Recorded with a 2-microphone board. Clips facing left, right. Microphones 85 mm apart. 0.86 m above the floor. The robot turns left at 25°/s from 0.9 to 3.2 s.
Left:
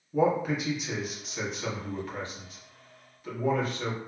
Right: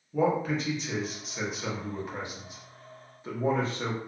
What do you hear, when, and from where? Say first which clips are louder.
0.1 s a man speaking: left 1 dB; 5° left (ahead or behind), 0.9 m; by 4.0 s 30° right (ahead or behind), 0.9 m